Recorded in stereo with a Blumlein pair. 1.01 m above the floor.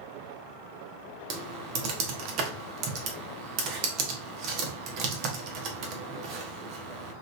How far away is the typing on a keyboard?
About 0.7 m.